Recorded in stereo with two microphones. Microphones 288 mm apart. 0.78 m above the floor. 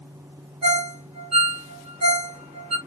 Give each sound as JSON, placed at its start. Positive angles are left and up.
{"t": 0.6, "sound": "a ringtone", "side_deg": -65, "distance_m": 1.0}